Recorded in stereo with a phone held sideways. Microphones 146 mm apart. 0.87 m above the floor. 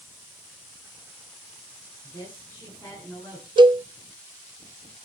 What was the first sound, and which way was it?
A woman speaking, 15° left (ahead or behind).